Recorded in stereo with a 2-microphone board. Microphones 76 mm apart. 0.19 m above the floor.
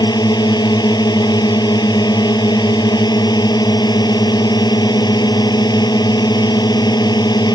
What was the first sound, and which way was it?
A drone, 65° left (ahead or behind).